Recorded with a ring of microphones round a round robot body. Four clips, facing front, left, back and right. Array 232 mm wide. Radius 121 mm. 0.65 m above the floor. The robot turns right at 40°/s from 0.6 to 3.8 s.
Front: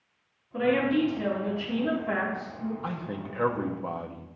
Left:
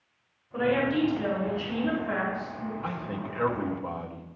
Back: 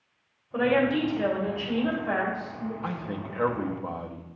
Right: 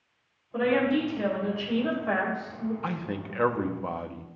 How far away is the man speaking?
About 0.7 m.